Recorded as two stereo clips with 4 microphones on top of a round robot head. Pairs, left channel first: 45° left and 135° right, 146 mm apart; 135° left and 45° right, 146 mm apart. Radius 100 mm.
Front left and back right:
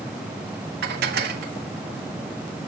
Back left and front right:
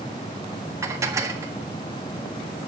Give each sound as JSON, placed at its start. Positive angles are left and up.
{"t": 0.8, "sound": "dishes clattering", "azimuth_deg": -115, "distance_m": 1.5}